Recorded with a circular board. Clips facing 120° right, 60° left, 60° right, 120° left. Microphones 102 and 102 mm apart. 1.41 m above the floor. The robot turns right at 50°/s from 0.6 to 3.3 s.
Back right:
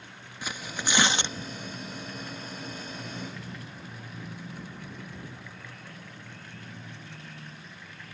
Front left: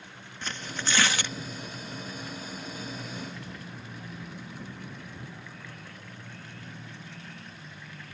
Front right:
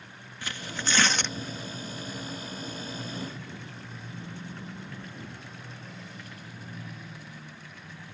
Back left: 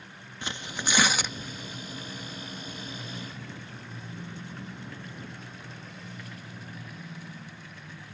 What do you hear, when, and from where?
0.4 s tearing paper: 170° left; by 1.4 s 155° right